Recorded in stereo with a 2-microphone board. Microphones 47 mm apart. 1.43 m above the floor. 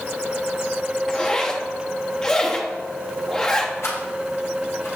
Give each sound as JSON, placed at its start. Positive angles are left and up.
{"t": 1.1, "sound": "a zipper", "side_deg": 15, "distance_m": 1.1}
{"t": 3.8, "sound": "a rattle", "side_deg": 75, "distance_m": 5.0}